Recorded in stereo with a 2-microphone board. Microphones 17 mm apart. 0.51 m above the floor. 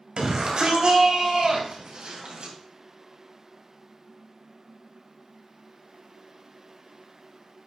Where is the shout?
55° right (ahead or behind), 2.5 m; by 2.5 s 75° right (ahead or behind), 3 m.